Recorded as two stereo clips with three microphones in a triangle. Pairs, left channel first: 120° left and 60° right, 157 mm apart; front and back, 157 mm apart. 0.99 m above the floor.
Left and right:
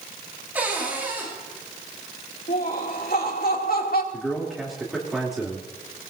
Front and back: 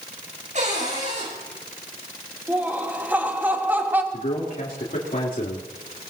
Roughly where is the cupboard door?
Behind right.